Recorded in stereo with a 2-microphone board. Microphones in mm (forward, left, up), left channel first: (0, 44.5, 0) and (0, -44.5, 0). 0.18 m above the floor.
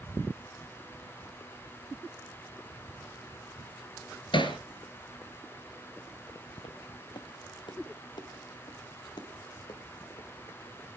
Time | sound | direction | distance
4.3 | hammering | 65° left (ahead or behind) | 1.9 m
6.6 | footsteps | 70° left (ahead or behind) | 0.8 m